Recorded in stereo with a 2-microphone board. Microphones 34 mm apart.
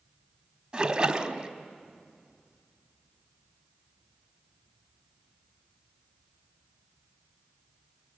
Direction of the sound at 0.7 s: 25° right (ahead or behind).